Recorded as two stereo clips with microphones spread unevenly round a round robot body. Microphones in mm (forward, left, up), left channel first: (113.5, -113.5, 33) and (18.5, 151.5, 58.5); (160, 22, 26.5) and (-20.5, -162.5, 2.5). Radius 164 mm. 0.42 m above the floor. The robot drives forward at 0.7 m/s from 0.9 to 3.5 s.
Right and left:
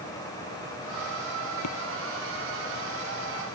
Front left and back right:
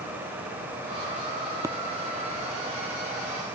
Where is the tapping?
55° right.